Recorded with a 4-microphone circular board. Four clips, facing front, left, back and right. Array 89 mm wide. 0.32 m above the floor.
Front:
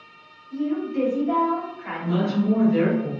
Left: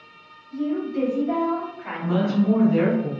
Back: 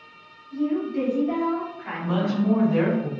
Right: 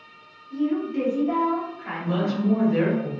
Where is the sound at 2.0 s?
175° left, 1.9 m.